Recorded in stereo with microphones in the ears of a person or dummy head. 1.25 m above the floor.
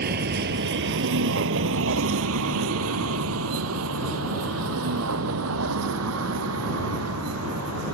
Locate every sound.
0.0 s a vehicle: 50° right (ahead or behind); by 8.0 s 75° right (ahead or behind)